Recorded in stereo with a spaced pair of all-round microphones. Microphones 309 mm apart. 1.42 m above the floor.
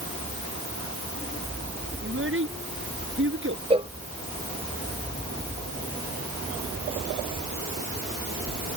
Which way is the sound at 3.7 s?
20° right (ahead or behind).